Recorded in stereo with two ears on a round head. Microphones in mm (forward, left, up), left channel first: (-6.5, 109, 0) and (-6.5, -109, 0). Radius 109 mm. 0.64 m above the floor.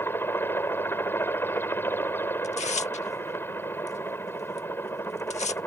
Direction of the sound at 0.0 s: 10° left (ahead or behind).